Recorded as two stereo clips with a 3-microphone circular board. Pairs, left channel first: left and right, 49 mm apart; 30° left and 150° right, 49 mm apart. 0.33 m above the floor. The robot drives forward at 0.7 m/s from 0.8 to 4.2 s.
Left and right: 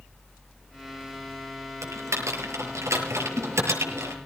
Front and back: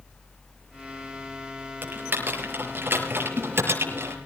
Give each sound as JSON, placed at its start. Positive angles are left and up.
{"t": 1.8, "sound": "typing on a keyboard", "azimuth_deg": -100, "distance_m": 6.0}